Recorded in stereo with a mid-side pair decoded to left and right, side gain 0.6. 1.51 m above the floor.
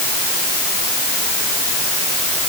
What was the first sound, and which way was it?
Only background noise.